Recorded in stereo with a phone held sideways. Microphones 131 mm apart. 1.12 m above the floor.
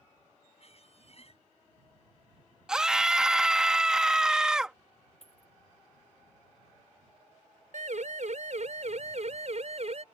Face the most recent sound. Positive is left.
turn(degrees=-55)  # may be behind; listen again after turning